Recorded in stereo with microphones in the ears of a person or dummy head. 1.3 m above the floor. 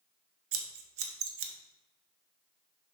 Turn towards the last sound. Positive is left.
turn(degrees=-65)  # may be behind; listen again after turning